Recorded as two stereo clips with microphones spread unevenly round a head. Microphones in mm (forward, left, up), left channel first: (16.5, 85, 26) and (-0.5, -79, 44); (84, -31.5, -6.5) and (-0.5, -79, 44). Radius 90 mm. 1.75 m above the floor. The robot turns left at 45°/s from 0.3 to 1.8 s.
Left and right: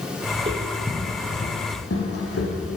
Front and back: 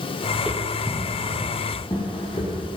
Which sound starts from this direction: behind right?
Footsteps, at 0.3 s.